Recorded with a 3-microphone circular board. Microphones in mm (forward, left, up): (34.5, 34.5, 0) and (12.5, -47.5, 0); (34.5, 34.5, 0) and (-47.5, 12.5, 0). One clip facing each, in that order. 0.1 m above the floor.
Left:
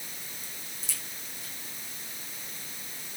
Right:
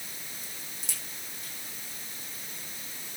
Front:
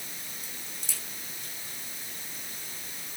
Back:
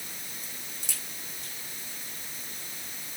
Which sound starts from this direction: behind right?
A crack, at 0.4 s.